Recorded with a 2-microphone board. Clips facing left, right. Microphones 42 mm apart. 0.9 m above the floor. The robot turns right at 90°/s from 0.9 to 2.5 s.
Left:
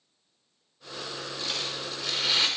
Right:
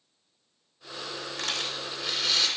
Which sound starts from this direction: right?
A rattle, at 1.4 s.